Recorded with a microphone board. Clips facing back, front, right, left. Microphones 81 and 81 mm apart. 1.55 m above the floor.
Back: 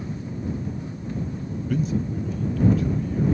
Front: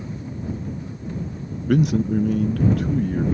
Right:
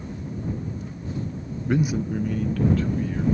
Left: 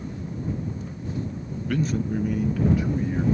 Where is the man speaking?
25° right; by 3.2 s 20° left.